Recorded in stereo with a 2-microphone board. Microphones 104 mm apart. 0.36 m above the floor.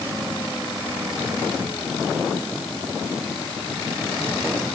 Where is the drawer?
I don't hear a drawer.